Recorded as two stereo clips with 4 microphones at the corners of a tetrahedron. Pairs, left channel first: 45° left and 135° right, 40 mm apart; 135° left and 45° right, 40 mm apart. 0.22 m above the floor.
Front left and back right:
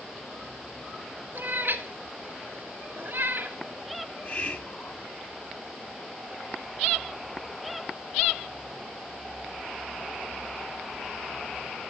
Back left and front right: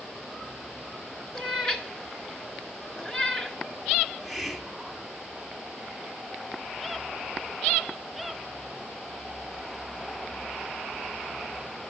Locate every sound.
1.4 s a cat meowing: 155° right, 1.4 m
4.0 s a hiss: 45° left, 1.3 m